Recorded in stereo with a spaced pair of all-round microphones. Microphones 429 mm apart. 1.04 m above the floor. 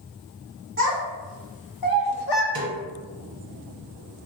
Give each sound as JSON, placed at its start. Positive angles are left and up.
{"t": 0.8, "sound": "a child speaking", "side_deg": 30, "distance_m": 1.5}
{"t": 2.5, "sound": "a snare drum", "side_deg": -55, "distance_m": 0.8}